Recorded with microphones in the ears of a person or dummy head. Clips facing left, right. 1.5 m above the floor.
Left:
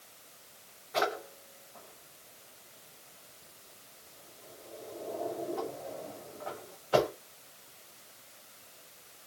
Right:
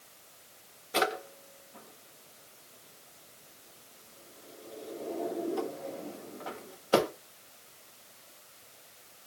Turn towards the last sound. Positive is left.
turn(degrees=-50)  # may be behind; listen again after turning